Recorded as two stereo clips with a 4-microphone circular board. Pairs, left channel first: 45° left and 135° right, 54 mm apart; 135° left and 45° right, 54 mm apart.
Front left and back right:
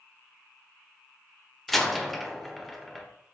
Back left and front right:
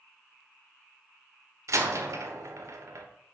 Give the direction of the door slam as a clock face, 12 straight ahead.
1 o'clock.